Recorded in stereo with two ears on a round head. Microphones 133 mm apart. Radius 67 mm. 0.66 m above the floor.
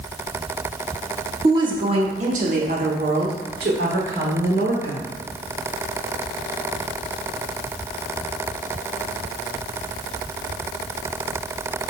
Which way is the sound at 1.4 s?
25° right (ahead or behind).